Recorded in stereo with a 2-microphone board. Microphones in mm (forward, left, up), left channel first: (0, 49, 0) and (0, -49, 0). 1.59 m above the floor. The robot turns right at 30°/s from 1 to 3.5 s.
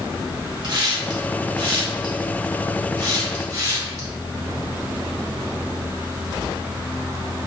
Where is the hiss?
50° right (ahead or behind), 1.2 m; by 4.1 s 35° right (ahead or behind), 1.2 m.